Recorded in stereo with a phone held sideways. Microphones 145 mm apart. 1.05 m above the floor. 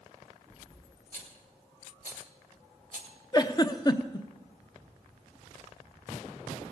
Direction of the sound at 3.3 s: 30° left (ahead or behind).